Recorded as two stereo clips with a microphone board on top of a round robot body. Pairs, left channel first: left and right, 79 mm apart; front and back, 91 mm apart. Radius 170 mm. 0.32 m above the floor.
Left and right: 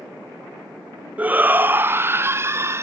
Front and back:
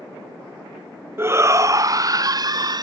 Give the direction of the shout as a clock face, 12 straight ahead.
5 o'clock.